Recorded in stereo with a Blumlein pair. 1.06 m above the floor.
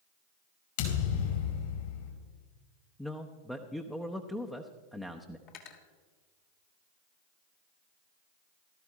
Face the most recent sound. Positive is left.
turn(degrees=40)